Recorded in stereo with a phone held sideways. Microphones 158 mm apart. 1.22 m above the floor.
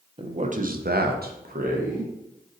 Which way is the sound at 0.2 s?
35° right (ahead or behind).